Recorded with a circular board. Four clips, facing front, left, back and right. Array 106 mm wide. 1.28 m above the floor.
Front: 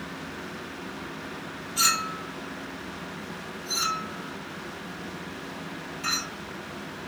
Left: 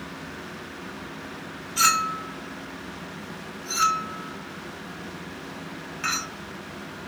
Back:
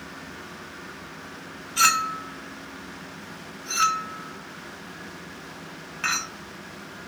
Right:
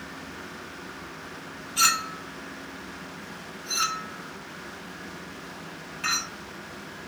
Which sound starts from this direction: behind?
A clink, at 1.8 s.